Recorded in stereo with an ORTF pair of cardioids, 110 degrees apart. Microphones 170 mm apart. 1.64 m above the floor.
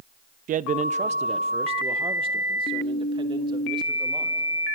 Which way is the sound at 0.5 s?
50° right.